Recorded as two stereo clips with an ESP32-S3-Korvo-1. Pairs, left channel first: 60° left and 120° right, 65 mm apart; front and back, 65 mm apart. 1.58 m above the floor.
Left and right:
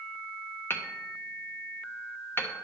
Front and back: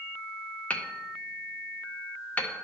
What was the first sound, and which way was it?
Hammering, 50° left.